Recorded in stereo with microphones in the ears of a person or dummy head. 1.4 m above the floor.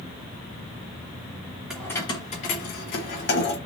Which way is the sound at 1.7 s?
Centre (ahead or behind).